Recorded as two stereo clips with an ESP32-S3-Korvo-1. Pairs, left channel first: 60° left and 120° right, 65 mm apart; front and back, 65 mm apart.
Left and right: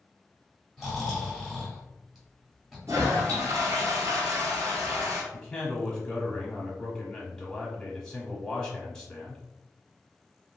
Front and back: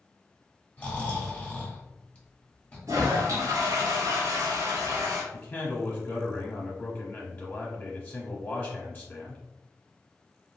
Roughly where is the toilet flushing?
Behind right.